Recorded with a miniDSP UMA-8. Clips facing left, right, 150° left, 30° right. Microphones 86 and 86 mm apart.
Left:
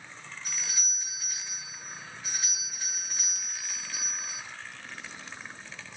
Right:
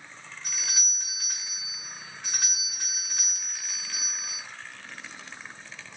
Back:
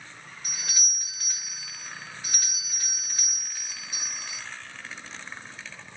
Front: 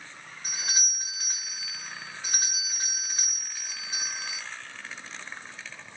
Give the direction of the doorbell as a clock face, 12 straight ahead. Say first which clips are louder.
Right 3 dB, front 6 dB; 3 o'clock.